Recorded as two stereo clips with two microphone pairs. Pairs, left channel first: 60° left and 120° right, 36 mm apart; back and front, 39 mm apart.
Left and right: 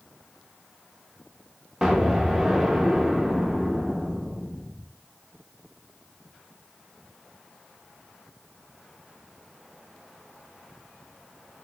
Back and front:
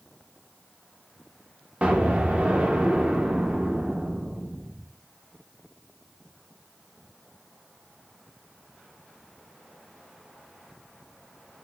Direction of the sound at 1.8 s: 45° right.